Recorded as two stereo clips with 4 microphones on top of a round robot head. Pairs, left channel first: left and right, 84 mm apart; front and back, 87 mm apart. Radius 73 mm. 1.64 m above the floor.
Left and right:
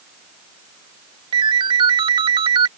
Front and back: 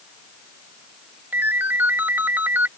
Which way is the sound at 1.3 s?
105° right.